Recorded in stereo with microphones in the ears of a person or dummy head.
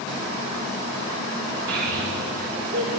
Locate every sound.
1.7 s a child speaking: 60° right (ahead or behind), 1.3 m